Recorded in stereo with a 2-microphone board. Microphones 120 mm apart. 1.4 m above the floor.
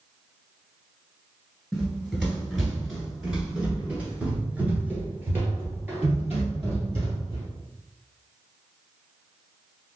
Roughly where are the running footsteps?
Centre.